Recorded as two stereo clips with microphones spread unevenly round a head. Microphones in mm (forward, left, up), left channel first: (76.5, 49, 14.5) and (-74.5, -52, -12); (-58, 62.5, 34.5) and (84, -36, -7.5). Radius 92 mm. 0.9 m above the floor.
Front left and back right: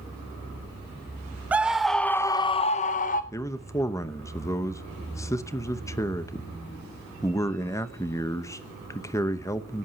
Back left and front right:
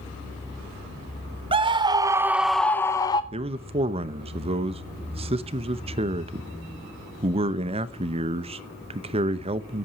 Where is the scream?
75° right, 0.7 m; by 3.2 s 70° left, 0.6 m.